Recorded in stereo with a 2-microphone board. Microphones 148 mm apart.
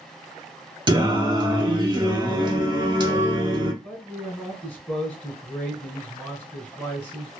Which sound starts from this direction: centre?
A man speaking, at 3.8 s.